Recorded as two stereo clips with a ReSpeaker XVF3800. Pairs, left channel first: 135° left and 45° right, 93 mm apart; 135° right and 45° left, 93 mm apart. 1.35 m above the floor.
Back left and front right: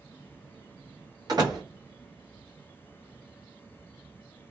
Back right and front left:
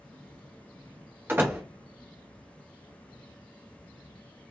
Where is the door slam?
15° right, 0.9 m.